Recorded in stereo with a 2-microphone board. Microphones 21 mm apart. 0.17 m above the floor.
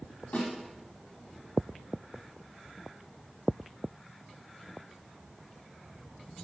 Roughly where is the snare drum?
Left.